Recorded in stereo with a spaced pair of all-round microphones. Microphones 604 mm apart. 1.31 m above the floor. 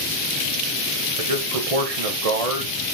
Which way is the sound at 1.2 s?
70° right (ahead or behind).